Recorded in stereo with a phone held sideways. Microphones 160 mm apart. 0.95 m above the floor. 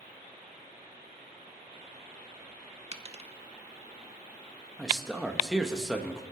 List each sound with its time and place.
2.9 s a dropped coin: 40° right (ahead or behind), 0.8 m
4.8 s a man speaking: centre (ahead or behind), 1.3 m